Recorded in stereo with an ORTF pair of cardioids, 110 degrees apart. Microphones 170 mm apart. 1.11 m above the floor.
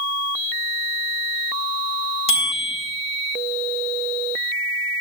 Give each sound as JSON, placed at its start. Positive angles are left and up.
{"t": 2.3, "sound": "a bicycle bell", "azimuth_deg": 35, "distance_m": 7.0}